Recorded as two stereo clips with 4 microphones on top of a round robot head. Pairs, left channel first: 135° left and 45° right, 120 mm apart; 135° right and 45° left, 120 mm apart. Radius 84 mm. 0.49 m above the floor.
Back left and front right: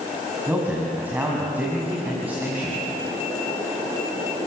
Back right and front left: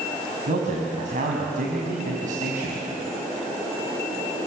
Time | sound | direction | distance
0.5 | a man speaking | 35° left | 4.5 m